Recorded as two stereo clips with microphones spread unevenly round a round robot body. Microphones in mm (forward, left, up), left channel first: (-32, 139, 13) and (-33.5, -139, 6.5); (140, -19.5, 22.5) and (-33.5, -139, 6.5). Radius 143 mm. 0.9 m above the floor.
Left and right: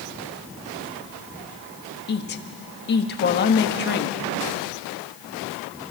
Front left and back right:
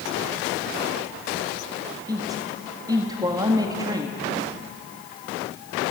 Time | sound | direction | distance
2.1 | a woman speaking | 140° left | 1.6 m